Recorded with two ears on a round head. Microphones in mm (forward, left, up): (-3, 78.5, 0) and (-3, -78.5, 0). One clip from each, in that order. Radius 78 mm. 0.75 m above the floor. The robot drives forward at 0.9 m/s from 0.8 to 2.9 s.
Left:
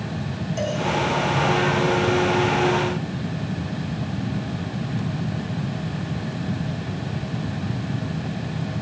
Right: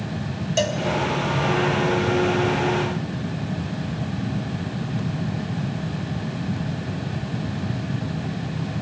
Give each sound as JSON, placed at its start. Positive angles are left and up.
{"t": 0.6, "sound": "a cowbell", "side_deg": -85, "distance_m": 2.0}